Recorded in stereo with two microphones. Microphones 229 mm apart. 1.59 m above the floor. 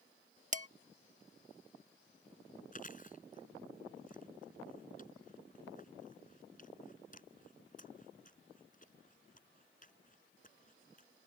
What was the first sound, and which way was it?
Dishes clattering, 35° right (ahead or behind).